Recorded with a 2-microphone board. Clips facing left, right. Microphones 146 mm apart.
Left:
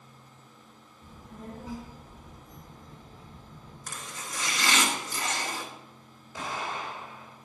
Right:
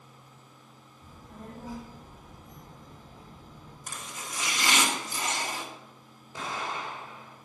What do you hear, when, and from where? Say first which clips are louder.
1.0 s a child speaking: left 2 dB; 30° right (ahead or behind), 2.5 m; by 3.8 s 55° right (ahead or behind), 3.5 m
3.9 s chopping: even; 15° right (ahead or behind), 1.3 m
6.3 s an explosion: even; 25° right (ahead or behind), 2.5 m